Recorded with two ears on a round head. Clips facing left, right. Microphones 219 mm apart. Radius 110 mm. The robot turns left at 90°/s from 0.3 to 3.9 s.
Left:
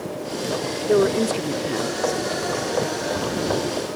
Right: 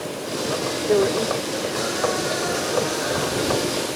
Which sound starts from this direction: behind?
A woman speaking, at 0.9 s.